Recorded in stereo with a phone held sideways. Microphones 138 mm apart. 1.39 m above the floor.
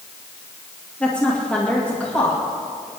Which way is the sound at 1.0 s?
10° left (ahead or behind).